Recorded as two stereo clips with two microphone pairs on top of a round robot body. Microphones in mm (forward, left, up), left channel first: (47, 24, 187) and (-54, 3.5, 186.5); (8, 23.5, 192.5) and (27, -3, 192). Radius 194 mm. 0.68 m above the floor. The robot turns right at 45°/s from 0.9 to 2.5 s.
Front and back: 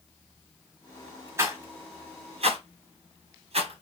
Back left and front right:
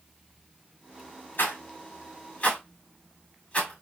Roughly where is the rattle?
Behind left.